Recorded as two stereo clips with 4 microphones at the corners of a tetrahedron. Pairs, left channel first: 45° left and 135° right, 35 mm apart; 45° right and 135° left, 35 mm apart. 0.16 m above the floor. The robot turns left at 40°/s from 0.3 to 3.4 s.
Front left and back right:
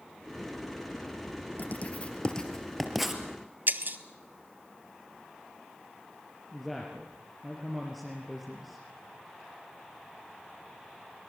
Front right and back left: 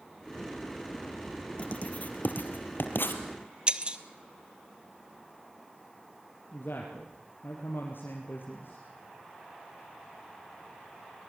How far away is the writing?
About 2.5 m.